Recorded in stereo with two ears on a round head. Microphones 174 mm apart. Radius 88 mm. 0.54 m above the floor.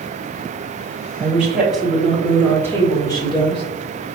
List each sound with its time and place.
1.2 s a woman speaking: 10° right (ahead or behind), 2 m; by 3.6 s 30° left (ahead or behind), 1.6 m